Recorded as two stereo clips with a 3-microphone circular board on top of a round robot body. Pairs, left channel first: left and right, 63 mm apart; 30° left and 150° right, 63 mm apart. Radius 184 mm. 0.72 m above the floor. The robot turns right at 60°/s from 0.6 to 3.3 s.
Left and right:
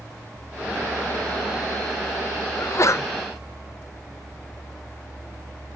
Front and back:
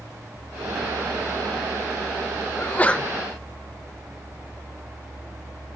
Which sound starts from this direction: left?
A sneeze, at 2.6 s.